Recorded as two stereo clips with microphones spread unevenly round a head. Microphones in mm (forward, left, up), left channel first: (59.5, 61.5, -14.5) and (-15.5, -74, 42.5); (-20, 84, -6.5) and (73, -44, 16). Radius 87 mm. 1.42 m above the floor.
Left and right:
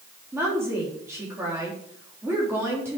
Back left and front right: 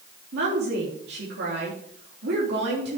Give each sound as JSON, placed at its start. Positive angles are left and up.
{"t": 0.3, "sound": "a woman speaking", "azimuth_deg": -45, "distance_m": 3.5}